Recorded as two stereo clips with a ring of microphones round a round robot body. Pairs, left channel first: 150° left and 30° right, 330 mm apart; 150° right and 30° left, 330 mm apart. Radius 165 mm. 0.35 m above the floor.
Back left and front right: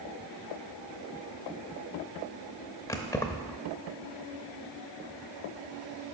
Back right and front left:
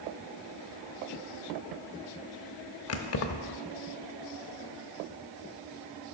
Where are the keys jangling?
130° right, 0.7 m.